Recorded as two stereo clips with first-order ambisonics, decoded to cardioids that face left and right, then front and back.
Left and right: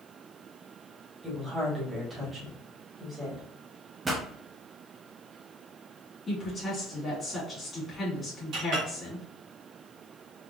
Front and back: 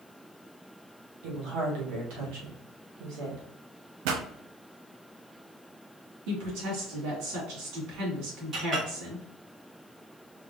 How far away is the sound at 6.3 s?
About 2.5 m.